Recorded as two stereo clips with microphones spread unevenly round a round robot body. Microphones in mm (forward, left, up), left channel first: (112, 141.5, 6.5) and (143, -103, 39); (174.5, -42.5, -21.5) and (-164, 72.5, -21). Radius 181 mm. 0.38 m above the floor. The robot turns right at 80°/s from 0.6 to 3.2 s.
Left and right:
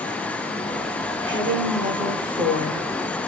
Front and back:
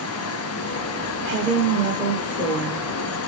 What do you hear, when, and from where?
1.2 s a woman speaking: 150° right, 1.1 m; by 2.9 s 20° right, 1.1 m